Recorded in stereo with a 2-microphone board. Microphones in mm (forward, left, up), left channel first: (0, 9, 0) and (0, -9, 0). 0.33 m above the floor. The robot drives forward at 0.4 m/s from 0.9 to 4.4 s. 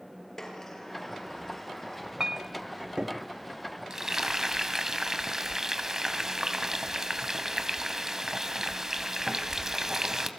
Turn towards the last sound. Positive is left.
turn(degrees=-35)  # may be behind; listen again after turning